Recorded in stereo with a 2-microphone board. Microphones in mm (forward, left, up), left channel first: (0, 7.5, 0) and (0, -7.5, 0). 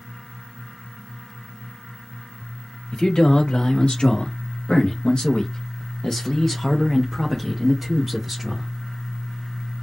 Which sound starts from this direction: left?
A man speaking, at 2.9 s.